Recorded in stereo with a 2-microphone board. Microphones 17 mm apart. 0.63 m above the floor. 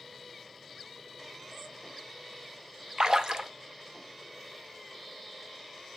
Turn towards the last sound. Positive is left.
turn(degrees=-60)  # may be behind; listen again after turning